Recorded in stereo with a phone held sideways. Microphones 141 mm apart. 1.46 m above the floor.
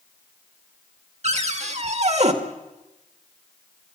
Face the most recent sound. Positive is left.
turn(degrees=-50)  # may be behind; listen again after turning